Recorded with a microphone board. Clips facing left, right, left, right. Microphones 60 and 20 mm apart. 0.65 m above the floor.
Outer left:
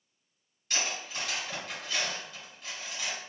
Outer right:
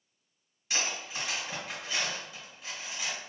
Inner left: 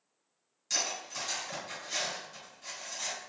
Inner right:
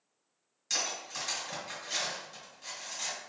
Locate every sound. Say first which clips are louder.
0.7 s cutlery clinking: even, even; 5° right (ahead or behind), 1.4 m